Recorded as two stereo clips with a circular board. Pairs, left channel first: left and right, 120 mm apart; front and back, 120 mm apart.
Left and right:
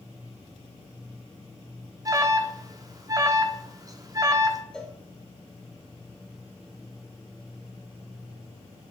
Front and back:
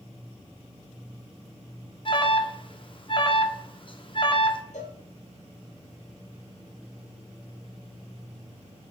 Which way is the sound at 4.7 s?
5° left.